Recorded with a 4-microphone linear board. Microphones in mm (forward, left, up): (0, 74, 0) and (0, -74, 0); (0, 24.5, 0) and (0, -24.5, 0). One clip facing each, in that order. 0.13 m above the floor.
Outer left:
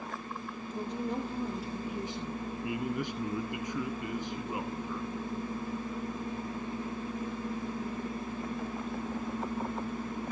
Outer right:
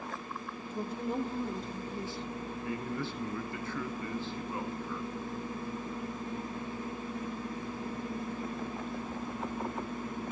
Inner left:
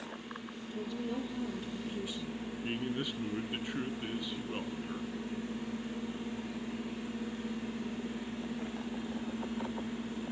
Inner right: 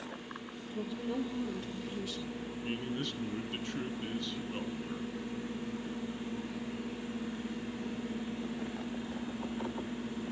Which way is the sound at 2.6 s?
15° left (ahead or behind).